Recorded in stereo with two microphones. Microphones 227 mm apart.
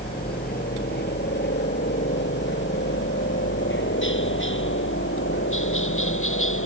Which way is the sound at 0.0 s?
45° left (ahead or behind).